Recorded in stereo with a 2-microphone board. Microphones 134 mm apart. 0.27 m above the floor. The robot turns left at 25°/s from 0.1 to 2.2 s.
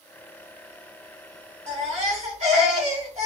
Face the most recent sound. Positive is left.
turn(degrees=-60)  # may be behind; listen again after turning